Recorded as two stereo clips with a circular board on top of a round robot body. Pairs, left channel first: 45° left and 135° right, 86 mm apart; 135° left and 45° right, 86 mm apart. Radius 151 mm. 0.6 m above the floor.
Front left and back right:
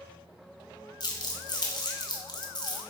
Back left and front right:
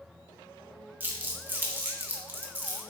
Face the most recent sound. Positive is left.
turn(degrees=20)